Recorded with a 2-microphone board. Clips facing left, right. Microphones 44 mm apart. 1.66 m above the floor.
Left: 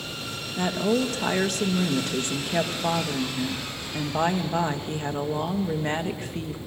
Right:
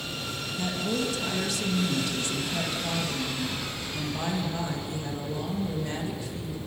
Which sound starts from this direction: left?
A woman speaking, at 0.6 s.